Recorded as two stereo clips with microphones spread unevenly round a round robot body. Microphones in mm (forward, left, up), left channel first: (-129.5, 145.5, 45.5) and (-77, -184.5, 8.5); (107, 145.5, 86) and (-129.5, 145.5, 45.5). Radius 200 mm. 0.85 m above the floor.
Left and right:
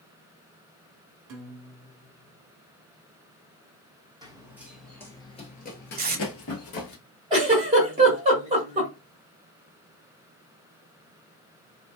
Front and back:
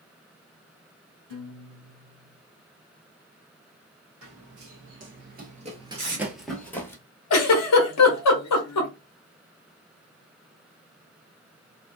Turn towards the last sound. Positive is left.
turn(degrees=-5)